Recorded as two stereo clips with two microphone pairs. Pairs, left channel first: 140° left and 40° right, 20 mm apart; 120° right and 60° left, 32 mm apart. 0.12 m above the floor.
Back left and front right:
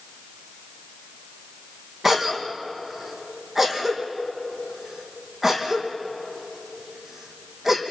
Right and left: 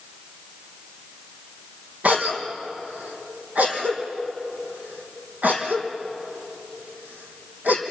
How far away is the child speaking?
No child speaking in this recording.